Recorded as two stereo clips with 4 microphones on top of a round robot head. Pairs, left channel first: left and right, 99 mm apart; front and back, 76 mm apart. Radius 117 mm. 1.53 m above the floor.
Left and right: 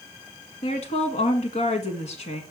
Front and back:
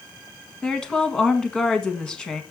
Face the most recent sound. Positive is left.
turn(degrees=80)